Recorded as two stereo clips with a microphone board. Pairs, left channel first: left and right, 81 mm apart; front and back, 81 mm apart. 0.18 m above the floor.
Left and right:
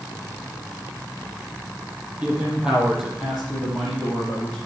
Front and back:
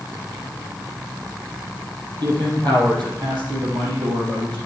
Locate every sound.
2.2 s a man speaking: 160° right, 4.5 m; by 4.6 s 170° left, 6 m